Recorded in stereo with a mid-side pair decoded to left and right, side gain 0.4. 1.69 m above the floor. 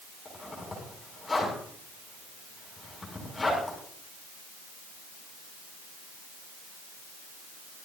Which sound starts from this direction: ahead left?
A zipper, at 0.2 s.